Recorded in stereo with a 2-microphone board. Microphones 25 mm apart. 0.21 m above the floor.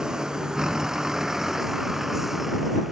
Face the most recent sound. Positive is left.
turn(degrees=-10)  # may be behind; listen again after turning